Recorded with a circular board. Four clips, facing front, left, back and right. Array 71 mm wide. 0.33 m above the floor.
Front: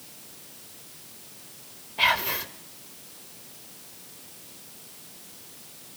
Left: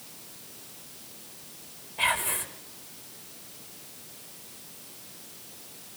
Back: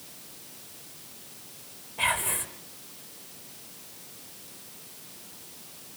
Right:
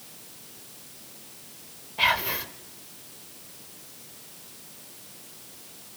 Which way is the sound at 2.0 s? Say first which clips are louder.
Right 3 dB, front 4 dB; 35° right.